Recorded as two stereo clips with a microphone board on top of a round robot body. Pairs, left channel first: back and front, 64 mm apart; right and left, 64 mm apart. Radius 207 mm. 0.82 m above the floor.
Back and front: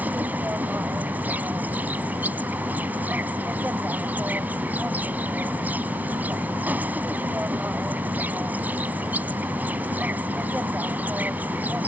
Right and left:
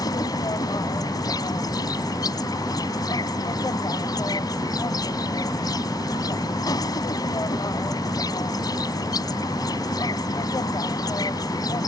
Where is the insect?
70° right.